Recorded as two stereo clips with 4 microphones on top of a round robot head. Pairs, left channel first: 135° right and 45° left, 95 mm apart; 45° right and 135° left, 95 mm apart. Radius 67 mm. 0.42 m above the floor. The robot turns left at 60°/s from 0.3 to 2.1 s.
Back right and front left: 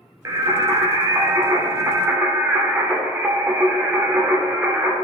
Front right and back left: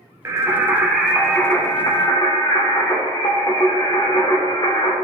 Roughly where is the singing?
Left.